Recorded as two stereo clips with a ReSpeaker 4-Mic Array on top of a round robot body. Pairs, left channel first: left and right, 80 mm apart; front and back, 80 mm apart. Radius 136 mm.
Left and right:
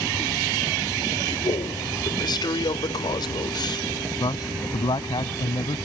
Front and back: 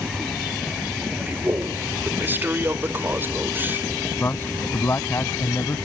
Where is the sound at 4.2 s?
65° left.